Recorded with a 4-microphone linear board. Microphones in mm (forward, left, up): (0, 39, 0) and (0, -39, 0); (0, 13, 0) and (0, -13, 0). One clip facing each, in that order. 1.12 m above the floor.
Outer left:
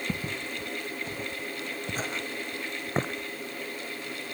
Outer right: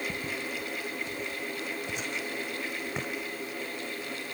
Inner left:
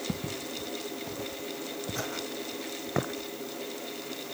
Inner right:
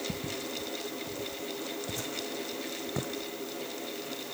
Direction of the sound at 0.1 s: 45° left (ahead or behind).